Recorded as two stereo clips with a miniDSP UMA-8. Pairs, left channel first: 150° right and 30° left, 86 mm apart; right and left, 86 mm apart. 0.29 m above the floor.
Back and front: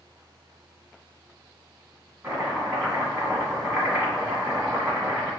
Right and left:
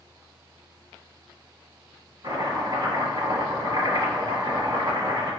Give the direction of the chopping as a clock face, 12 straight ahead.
9 o'clock.